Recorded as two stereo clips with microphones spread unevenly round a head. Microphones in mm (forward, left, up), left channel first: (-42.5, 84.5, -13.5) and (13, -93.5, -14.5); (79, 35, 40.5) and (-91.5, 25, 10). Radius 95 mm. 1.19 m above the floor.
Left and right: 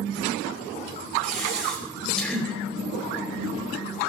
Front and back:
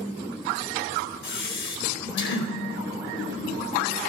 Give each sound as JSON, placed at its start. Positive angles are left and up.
{"t": 1.2, "sound": "breathing", "azimuth_deg": 20, "distance_m": 4.5}